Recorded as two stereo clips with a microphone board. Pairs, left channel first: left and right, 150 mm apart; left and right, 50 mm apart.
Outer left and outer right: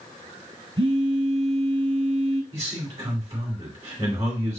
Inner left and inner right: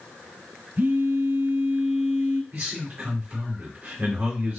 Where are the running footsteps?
No running footsteps in this recording.